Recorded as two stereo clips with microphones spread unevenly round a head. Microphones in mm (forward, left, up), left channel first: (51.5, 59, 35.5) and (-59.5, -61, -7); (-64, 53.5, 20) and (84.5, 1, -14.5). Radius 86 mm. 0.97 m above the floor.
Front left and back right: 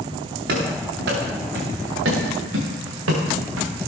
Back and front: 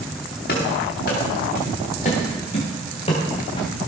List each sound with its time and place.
0.5 s running footsteps: 165° right, 5.5 m; by 3.9 s 135° right, 4.5 m